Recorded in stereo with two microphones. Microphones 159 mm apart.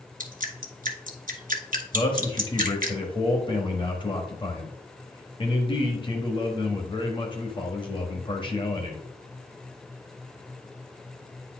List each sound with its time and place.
0.2 s dripping: 60° right (ahead or behind), 1.2 m
1.9 s a man speaking: 30° left (ahead or behind), 1.1 m